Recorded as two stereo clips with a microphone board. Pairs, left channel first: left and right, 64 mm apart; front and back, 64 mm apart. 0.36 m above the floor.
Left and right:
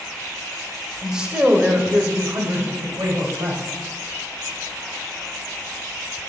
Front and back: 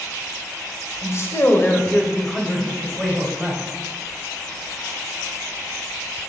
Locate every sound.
1.0 s a man speaking: 10° right, 1.2 m; by 3.6 s 110° right, 1.7 m